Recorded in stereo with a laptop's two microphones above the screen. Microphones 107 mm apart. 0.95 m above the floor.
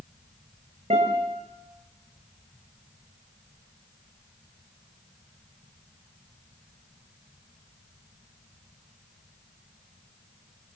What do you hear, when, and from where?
0.9 s a guitar: 80° right, 6 m